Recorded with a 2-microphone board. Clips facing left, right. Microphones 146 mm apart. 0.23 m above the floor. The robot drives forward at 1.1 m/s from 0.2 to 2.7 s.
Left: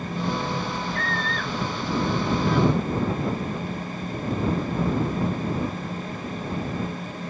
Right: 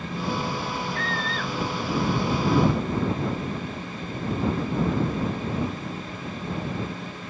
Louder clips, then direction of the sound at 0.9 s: Left 1 dB; 45° left (ahead or behind).